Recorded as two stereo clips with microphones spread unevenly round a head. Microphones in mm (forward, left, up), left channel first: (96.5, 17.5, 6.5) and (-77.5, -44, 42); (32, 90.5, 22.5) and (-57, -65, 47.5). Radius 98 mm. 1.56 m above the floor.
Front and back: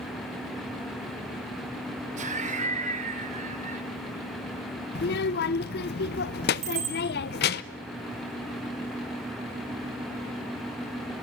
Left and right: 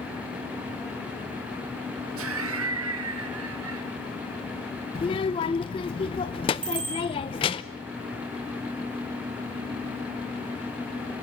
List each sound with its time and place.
2.2 s laughter: 110° right, 2.5 m
5.0 s a child speaking: 5° right, 0.7 m
6.6 s a bicycle bell: straight behind, 9.5 m